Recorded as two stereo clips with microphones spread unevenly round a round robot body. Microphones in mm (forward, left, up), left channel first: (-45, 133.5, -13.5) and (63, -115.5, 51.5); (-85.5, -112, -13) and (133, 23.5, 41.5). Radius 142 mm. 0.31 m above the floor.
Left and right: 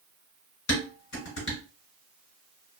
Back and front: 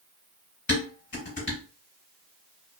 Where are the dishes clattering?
155° left, 1.6 m.